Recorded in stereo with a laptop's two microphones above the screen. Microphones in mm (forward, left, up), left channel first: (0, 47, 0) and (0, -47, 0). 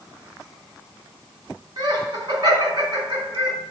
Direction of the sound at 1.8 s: 50° right (ahead or behind).